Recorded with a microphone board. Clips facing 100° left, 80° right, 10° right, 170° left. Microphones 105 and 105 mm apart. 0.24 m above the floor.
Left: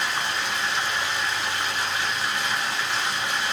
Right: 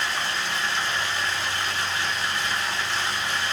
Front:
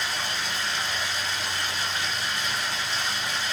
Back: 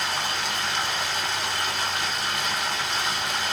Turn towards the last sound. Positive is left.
turn(degrees=170)